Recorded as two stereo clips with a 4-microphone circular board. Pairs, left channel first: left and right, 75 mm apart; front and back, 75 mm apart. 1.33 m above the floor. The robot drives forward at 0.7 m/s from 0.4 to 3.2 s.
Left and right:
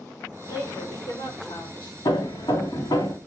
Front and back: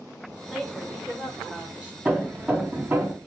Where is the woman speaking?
95° left, 5.5 m; by 1.9 s 105° left, 6 m.